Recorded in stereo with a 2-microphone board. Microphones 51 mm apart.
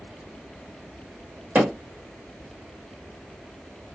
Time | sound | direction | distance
1.6 | hammering | 35° right (ahead or behind) | 1.4 m